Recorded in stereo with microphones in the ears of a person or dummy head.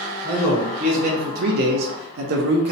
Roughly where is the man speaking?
Right.